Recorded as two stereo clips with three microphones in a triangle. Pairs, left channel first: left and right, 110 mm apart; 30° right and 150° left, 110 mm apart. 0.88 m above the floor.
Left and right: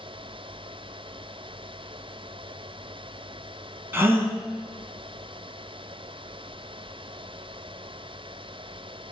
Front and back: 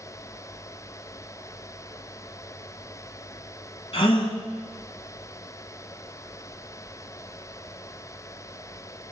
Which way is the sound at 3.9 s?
25° right.